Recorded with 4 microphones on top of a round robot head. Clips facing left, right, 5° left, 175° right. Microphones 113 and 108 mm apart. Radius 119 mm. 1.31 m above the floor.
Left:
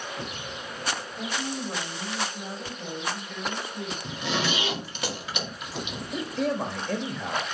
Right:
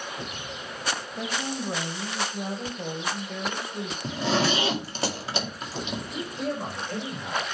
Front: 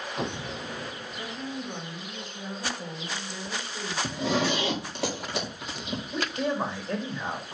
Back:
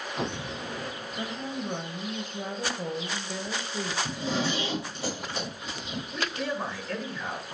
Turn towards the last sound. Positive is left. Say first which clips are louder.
# left 5 dB, front 3 dB
turn(degrees=80)